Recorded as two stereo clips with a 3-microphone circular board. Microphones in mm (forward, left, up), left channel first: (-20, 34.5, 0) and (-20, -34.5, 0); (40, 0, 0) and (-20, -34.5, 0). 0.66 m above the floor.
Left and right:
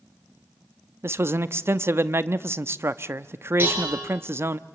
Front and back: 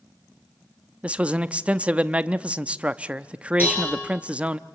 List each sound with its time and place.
1.0 s a man speaking: 90° right, 0.6 m
3.6 s dishes clattering: 30° right, 7.5 m